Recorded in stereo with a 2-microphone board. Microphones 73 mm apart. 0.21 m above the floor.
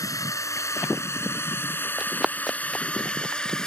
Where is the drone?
50° left (ahead or behind); by 3.7 s 10° left (ahead or behind).